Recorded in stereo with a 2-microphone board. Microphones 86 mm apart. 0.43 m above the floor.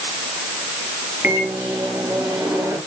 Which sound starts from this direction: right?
A microwave, at 1.2 s.